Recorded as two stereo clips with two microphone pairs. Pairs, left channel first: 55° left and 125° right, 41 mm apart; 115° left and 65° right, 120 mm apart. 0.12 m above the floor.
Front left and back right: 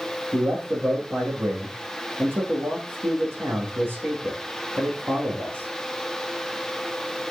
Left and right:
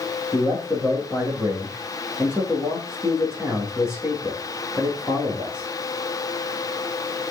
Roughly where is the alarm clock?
No alarm clock in this recording.